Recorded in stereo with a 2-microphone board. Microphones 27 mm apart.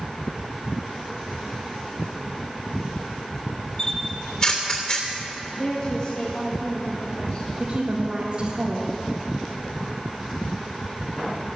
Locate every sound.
3.8 s a camera shutter: 40° left (ahead or behind), 3 m
5.6 s a woman speaking: 40° left (ahead or behind), 1.9 m
7.6 s a woman speaking: 40° right (ahead or behind), 1.7 m